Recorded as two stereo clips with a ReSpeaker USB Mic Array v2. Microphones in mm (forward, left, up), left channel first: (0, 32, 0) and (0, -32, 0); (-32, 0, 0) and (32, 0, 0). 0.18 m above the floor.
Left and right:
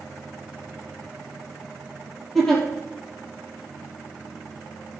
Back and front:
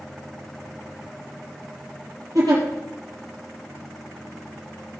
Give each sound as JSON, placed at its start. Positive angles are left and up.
{"t": 2.4, "sound": "a giggle", "azimuth_deg": 5, "distance_m": 4.5}